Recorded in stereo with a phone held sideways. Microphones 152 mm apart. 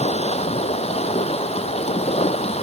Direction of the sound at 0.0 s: 45° left (ahead or behind).